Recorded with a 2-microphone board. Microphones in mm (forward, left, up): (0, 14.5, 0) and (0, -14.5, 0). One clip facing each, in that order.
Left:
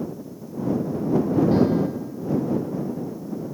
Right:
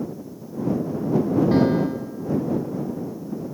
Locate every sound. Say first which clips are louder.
1.5 s a piano: right 1 dB; 30° right (ahead or behind)